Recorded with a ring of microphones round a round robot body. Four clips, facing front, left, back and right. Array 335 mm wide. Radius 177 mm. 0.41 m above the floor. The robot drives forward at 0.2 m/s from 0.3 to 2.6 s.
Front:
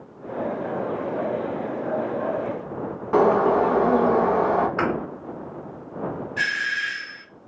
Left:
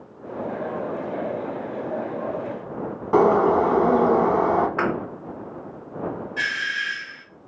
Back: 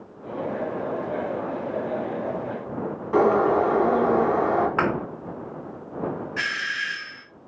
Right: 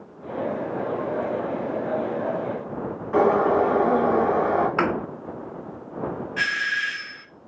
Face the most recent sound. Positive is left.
turn(degrees=-145)